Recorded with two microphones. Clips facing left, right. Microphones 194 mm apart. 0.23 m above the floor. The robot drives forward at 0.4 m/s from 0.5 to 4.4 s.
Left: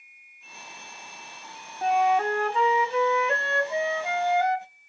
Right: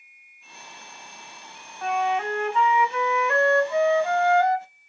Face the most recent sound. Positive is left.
turn(degrees=15)  # may be behind; listen again after turning